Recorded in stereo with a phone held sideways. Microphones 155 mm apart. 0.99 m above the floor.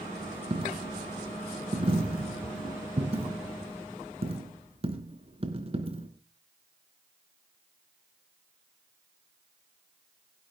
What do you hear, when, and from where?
0.5 s a dropped coin: 40° right (ahead or behind), 2.5 m